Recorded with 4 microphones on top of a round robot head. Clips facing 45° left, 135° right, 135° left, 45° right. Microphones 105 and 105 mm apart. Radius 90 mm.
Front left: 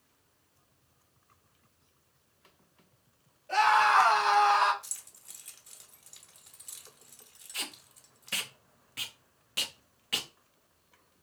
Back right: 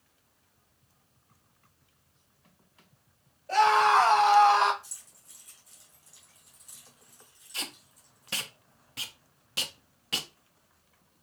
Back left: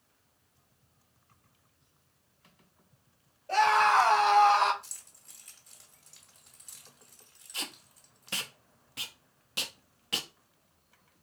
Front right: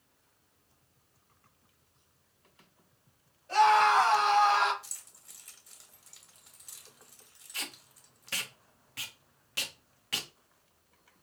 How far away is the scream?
About 3 m.